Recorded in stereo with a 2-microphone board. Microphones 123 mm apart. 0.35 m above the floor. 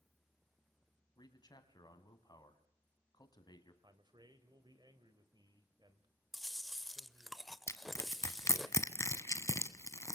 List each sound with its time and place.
1.2 s a man speaking: 35° left (ahead or behind), 3 m
3.8 s a man speaking: 35° right (ahead or behind), 1.9 m
6.3 s chewing: centre (ahead or behind), 0.7 m
7.7 s crushing: 25° left (ahead or behind), 1.3 m